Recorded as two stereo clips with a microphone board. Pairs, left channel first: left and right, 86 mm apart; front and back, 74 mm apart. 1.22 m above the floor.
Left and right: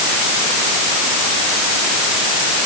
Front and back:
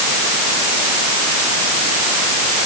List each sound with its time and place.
Only background noise.